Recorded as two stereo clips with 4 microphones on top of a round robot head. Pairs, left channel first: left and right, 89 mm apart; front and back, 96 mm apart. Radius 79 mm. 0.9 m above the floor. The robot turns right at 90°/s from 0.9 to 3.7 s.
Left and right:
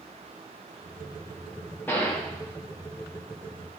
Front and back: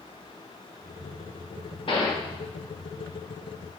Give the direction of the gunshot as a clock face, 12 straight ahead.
11 o'clock.